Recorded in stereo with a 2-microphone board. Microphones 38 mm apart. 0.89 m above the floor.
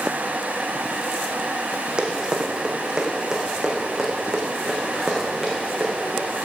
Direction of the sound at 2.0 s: 25° right (ahead or behind).